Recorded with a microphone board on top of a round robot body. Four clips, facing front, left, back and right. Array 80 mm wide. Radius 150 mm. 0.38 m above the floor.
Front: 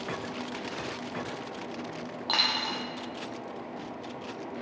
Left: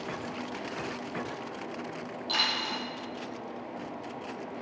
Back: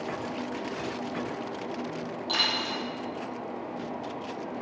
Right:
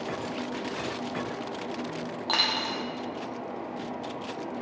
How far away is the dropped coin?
About 0.6 m.